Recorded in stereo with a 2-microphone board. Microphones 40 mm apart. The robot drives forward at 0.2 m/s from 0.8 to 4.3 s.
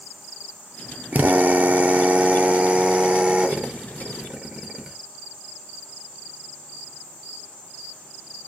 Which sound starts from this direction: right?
A drill, at 1.1 s.